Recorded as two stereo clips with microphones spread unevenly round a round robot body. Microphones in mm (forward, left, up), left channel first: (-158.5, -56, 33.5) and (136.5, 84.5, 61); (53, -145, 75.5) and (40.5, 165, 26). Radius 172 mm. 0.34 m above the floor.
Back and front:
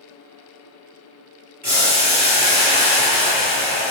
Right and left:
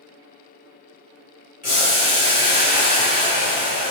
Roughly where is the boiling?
Ahead right.